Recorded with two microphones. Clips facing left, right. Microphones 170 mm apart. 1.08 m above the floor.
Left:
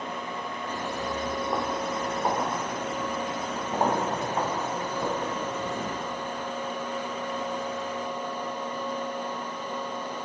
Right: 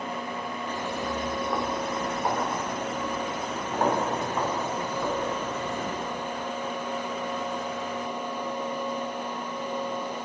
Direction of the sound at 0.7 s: 15° left (ahead or behind).